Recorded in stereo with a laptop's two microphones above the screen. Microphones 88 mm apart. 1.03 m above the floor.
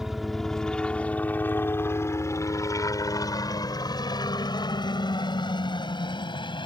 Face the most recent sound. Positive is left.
turn(degrees=60)  # may be behind; listen again after turning